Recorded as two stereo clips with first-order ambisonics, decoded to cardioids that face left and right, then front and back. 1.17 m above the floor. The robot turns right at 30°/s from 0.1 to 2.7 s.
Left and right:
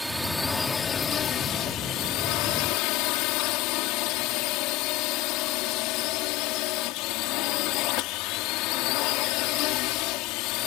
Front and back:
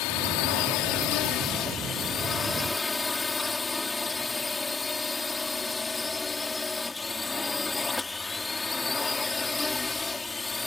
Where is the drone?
Straight ahead; by 10.7 s 75° left.